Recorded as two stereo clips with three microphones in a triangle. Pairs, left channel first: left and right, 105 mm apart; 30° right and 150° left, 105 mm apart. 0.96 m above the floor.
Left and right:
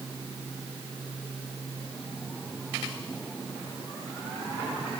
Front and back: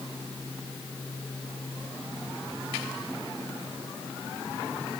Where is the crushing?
No crushing in this recording.